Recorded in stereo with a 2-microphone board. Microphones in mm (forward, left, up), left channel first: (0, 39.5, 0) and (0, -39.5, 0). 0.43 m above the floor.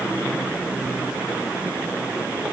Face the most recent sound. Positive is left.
No sound to turn to.